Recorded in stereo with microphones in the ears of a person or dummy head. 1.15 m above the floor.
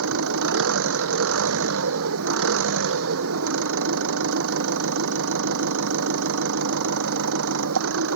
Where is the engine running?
75° right (ahead or behind).